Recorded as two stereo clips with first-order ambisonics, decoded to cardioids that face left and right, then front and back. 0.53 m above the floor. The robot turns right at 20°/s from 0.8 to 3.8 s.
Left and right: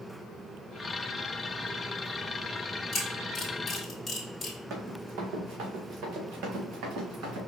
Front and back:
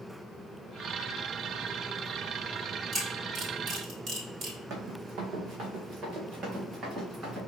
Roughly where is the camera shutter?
Behind left.